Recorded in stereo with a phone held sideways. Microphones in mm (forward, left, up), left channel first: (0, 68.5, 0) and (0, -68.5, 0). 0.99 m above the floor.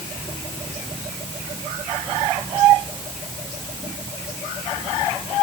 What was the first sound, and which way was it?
Only background noise.